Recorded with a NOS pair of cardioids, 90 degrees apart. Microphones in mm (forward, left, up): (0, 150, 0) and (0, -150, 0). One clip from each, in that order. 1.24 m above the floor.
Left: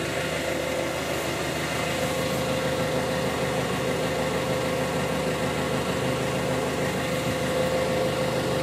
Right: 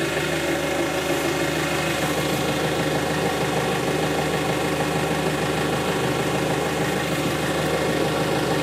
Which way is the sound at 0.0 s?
50° right.